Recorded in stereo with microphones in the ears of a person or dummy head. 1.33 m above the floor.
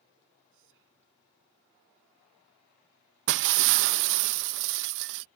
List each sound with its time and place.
0.5 s whispering: 70° right (ahead or behind)
3.3 s breaking glass: 55° right (ahead or behind)